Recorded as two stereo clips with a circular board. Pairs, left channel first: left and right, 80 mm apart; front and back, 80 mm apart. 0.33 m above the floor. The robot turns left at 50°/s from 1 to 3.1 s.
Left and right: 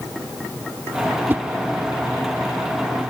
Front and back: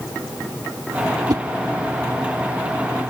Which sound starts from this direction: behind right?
A whoosh, at 1.3 s.